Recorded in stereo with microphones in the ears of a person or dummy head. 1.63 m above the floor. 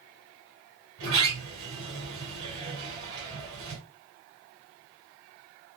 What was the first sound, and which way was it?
A sliding door, 40° right (ahead or behind).